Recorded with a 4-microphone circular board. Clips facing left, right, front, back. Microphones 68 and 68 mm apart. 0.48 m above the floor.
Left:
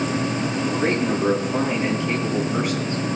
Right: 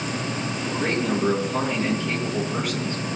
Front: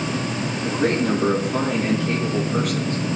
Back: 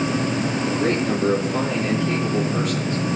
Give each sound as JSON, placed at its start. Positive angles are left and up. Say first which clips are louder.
{"t": 0.6, "sound": "a man speaking", "louder": "left 2 dB, front 3 dB", "azimuth_deg": 10, "distance_m": 6.0}